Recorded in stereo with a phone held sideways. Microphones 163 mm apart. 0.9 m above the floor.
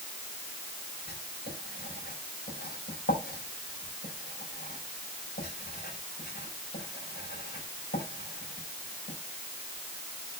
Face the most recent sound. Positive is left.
turn(degrees=80)